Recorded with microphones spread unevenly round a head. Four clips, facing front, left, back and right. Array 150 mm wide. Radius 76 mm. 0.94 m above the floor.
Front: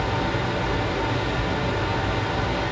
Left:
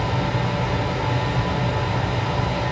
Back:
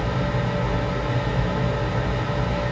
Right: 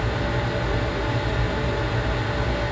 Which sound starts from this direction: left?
A fan, at 0.0 s.